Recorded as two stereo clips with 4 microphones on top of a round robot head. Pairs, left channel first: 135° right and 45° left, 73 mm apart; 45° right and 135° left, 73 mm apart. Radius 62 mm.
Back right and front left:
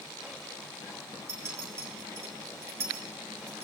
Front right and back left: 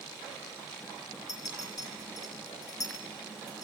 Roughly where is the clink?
Ahead.